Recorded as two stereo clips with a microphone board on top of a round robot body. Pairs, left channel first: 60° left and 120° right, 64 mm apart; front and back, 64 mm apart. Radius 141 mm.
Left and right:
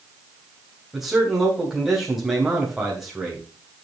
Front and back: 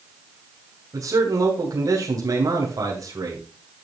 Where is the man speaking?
155° left, 3 m.